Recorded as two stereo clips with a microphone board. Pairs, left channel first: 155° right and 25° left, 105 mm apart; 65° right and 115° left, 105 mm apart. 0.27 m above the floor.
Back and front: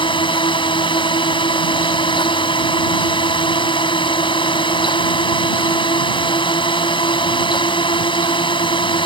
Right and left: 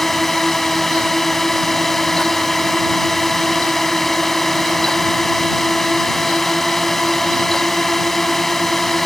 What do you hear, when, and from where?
0.0 s a drone: 155° right